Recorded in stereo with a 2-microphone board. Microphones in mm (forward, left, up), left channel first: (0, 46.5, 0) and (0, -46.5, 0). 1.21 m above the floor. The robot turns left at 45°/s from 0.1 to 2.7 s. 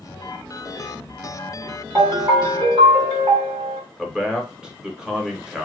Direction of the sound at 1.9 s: 45° right.